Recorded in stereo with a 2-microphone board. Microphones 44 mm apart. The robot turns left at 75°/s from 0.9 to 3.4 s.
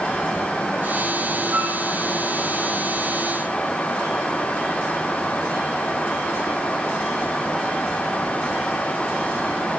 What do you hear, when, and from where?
1.5 s a flute: 50° right (ahead or behind), 7.5 m; by 1.8 s 70° right (ahead or behind), 7.5 m